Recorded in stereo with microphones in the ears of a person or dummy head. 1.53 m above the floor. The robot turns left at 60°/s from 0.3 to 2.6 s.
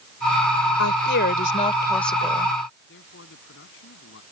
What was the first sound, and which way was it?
A woman speaking, 80° left.